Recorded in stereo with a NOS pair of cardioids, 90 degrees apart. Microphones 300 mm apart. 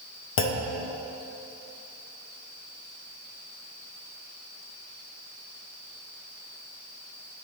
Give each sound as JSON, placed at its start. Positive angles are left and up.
{"t": 0.4, "sound": "a clunk", "azimuth_deg": 45, "distance_m": 0.5}